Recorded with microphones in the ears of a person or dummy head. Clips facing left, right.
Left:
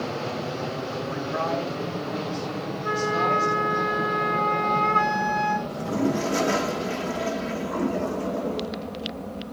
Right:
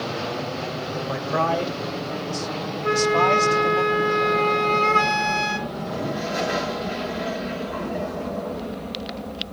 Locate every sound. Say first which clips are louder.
1.1 s a man speaking: right 5 dB; 60° right (ahead or behind), 2.5 m; by 3.8 s 75° right (ahead or behind), 4 m
2.8 s a flute: right 6 dB; 35° right (ahead or behind), 1.9 m
5.7 s a toilet flushing: left 3 dB; 50° left (ahead or behind), 2.5 m